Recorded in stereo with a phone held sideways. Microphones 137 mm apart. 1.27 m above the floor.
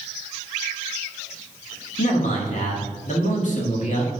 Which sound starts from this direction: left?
A man speaking, at 2.0 s.